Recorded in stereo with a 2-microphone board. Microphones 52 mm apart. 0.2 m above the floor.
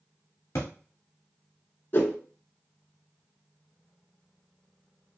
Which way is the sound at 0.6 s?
70° left (ahead or behind).